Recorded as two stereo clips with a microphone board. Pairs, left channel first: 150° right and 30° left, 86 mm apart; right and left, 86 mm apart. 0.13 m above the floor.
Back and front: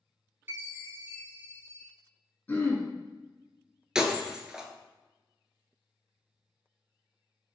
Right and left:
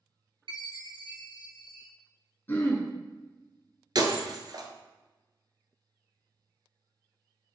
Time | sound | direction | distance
0.5 | a chime | 90° left | 0.8 m
2.5 | throat clearing | 110° right | 0.8 m
4.0 | breaking glass | 110° left | 0.5 m